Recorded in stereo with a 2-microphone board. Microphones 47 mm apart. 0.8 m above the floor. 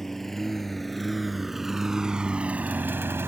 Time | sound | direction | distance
0.0 | a lawn mower | 5° left (ahead or behind) | ?